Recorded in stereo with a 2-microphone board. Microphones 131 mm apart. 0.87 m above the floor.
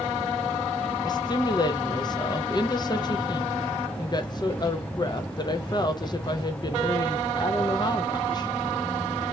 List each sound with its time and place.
1.0 s a woman speaking: 35° left (ahead or behind), 0.5 m